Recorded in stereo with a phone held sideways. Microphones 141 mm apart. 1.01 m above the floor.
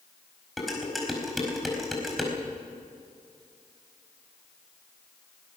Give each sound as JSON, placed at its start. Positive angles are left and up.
{"t": 0.6, "sound": "dishes clattering", "side_deg": 0, "distance_m": 4.5}